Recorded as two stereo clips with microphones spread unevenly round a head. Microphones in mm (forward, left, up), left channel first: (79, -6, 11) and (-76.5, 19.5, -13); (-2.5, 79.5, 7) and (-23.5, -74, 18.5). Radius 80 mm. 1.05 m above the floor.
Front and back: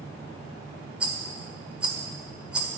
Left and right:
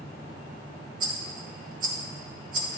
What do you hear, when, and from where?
1.0 s a rattle: 100° right, 1.0 m